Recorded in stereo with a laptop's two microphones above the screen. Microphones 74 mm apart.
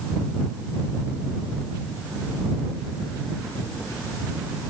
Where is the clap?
I don't hear a clap.